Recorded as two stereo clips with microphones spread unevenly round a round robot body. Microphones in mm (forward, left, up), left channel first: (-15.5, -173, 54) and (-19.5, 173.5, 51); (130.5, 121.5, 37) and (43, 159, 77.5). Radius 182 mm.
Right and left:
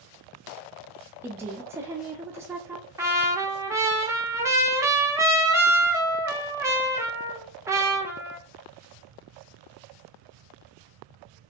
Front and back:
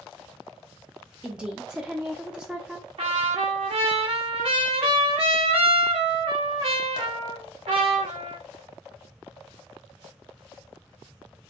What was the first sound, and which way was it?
A woman speaking, 20° left.